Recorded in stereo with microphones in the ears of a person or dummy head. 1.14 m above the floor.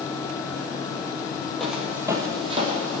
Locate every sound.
1.6 s footsteps: centre (ahead or behind), 2 m; by 3.0 s 45° right (ahead or behind), 2.5 m